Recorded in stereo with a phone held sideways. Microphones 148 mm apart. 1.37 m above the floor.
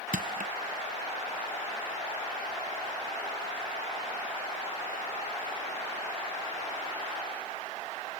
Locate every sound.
0.1 s crushing: 70° right (ahead or behind)